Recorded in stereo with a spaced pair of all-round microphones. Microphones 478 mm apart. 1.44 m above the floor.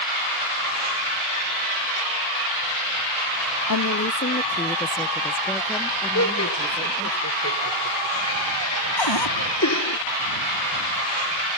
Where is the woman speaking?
45° left (ahead or behind); by 7.2 s 5° right (ahead or behind).